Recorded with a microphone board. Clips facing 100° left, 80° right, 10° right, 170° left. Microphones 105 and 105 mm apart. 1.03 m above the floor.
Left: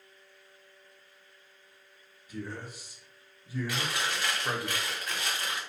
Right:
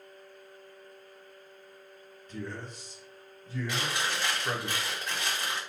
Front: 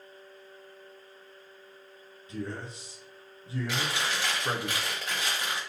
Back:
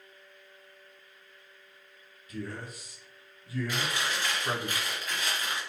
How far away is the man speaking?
About 0.6 m.